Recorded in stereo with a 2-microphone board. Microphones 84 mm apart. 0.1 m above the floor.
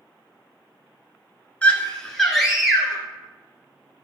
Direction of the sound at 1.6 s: 15° left (ahead or behind).